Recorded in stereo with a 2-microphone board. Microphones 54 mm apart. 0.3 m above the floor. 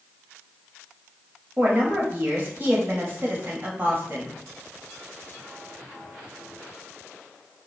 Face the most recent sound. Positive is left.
turn(degrees=-40)  # may be behind; listen again after turning